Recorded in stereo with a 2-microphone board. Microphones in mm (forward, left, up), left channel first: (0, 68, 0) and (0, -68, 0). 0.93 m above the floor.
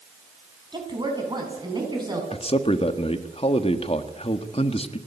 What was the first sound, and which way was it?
A woman speaking, 30° right (ahead or behind).